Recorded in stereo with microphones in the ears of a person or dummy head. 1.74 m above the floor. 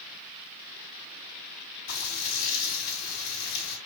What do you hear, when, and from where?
1.9 s frying: 65° left (ahead or behind), 3.5 m